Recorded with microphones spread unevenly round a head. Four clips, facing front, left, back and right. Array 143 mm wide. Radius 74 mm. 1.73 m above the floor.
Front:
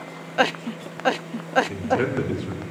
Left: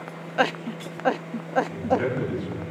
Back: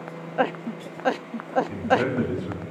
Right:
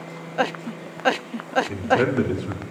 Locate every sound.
1.7 s a man speaking: 65° right, 5 m